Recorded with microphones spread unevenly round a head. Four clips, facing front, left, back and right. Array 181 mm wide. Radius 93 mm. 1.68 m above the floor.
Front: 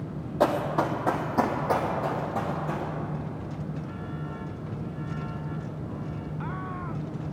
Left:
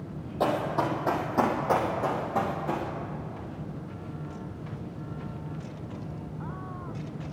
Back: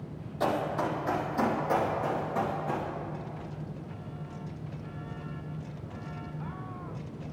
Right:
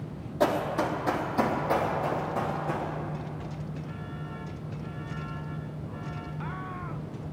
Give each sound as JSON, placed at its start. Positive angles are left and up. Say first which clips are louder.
{"t": 0.4, "sound": "running footsteps", "louder": "right 1 dB, front 5 dB", "azimuth_deg": 15, "distance_m": 3.0}